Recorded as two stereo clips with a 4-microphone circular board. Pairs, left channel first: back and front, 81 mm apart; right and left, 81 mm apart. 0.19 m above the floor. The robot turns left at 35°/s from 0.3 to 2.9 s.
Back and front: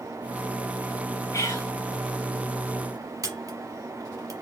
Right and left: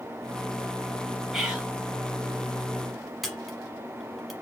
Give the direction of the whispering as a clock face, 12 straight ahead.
6 o'clock.